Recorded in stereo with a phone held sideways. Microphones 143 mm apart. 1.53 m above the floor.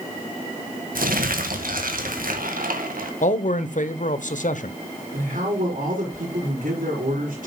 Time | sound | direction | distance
0.9 | crumpling | 80° right | 1.7 m
3.2 | a man speaking | 60° left (ahead or behind) | 0.9 m
5.1 | a man speaking | 70° right (ahead or behind) | 4 m